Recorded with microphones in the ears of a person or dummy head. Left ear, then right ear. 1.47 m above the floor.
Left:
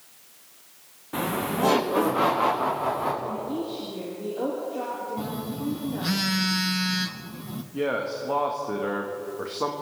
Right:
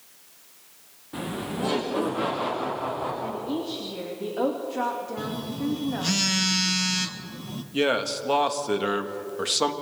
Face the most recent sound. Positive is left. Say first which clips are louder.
# right 3 dB
turn(degrees=-70)  # may be behind; listen again after turning